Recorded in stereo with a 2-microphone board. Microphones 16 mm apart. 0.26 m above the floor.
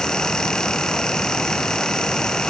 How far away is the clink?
No clink in this recording.